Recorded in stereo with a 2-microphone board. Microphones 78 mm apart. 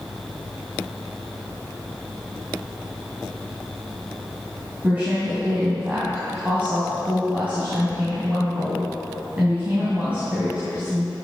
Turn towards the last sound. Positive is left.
turn(degrees=-20)  # may be behind; listen again after turning